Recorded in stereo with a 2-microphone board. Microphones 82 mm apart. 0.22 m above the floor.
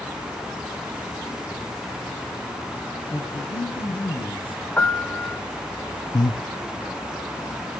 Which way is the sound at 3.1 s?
80° left.